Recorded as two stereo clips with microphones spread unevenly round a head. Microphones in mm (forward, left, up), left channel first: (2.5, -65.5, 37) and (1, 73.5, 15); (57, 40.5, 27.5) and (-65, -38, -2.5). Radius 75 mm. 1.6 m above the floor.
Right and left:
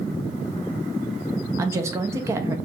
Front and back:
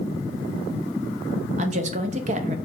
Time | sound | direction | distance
1.6 | a woman speaking | 165° left | 0.7 m